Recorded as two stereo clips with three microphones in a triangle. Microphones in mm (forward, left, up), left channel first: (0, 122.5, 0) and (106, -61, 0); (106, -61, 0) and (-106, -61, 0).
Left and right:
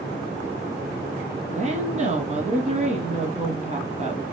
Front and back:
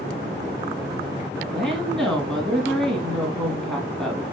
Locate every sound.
1.5 s a woman speaking: 85° right, 1.3 m